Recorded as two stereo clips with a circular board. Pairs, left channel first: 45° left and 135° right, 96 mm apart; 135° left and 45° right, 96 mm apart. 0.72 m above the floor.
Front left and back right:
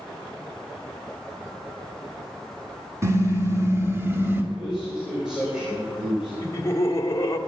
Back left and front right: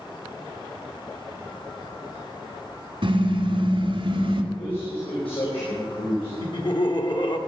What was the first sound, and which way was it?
A car horn, 75° right.